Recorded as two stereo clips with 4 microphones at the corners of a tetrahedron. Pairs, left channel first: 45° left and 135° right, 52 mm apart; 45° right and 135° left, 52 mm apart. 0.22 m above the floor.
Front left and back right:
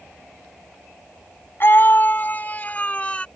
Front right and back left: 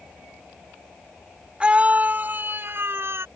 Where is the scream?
70° left; by 3.2 s 110° left.